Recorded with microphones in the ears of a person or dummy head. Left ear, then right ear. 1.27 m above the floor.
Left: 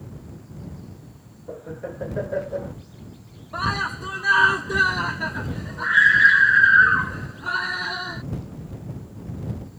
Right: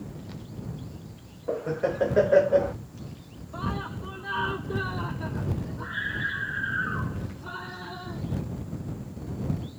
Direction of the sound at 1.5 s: 70° right (ahead or behind).